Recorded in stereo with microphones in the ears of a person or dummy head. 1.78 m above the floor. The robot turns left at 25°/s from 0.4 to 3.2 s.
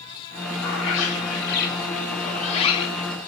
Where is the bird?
90° left, 3.5 m; by 3.1 s 30° left, 3.5 m.